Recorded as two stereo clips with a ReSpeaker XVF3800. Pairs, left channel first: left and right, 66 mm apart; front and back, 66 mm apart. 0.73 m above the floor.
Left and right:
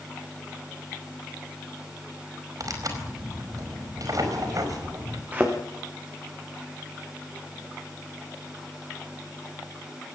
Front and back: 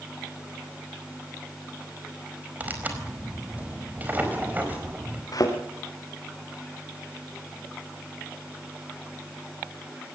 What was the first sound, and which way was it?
Tearing paper, 115° right.